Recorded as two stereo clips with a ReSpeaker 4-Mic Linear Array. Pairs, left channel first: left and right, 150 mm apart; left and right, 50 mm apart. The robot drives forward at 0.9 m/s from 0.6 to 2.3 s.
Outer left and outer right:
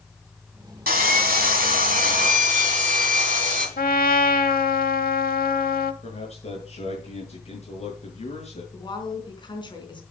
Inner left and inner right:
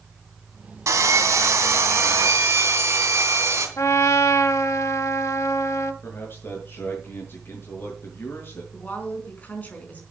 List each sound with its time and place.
0.9 s sawing: 75° right (ahead or behind), 2.5 m; by 3.7 s 60° right (ahead or behind), 3 m
3.8 s a trumpet: 70° left (ahead or behind), 0.8 m
6.0 s a man speaking: 45° left (ahead or behind), 6.5 m
8.7 s a woman speaking: 30° left (ahead or behind), 4 m